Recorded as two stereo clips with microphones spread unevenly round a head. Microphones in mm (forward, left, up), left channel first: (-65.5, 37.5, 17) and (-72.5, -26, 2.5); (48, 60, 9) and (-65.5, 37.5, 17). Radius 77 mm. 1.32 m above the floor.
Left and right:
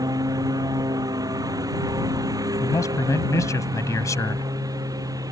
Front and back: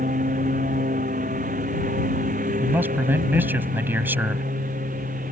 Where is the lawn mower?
120° right; by 5.3 s 125° right.